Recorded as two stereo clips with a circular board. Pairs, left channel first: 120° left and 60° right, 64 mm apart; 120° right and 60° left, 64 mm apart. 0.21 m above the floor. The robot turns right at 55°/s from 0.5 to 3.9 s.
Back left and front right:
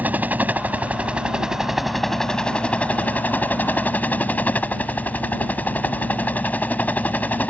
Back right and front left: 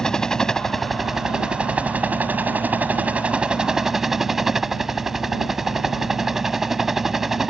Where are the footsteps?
I don't hear footsteps.